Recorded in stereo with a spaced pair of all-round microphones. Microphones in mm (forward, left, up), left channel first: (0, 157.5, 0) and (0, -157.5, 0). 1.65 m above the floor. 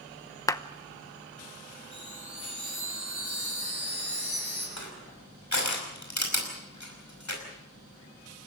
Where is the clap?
10° left (ahead or behind), 0.8 m.